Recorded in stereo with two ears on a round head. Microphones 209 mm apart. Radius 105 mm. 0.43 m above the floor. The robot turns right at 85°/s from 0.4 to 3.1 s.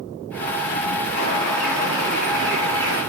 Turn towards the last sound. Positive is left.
turn(degrees=-55)